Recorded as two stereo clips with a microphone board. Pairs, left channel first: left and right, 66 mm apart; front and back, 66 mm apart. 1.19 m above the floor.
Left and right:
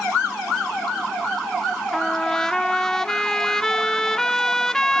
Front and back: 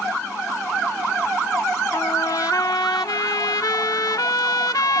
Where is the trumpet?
10° left.